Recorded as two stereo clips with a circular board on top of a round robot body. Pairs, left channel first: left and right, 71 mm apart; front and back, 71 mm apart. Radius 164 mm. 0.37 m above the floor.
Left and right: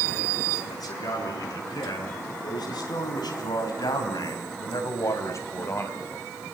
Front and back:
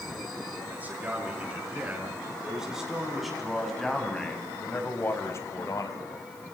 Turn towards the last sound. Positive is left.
turn(degrees=30)